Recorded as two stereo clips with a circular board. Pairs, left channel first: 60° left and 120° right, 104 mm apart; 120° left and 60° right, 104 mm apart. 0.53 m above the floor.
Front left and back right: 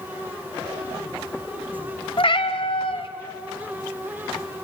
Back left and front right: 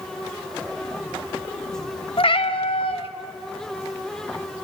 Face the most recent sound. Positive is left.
turn(degrees=90)